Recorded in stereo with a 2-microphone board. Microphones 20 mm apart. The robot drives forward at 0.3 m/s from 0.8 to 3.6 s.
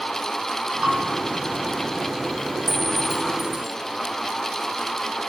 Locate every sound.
0.8 s a bell: 75° right (ahead or behind), 5 m
2.7 s a clink: 5° left (ahead or behind), 1.2 m